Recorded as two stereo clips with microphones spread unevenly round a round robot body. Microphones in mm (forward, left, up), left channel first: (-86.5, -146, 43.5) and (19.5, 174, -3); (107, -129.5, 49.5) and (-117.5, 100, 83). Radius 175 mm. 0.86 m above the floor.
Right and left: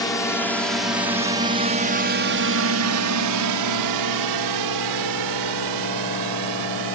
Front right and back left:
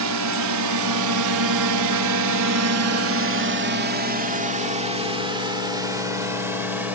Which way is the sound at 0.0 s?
170° left.